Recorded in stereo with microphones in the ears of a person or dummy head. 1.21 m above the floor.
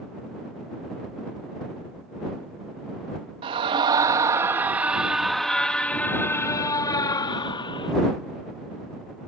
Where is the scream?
30° right (ahead or behind); by 7.9 s 25° left (ahead or behind).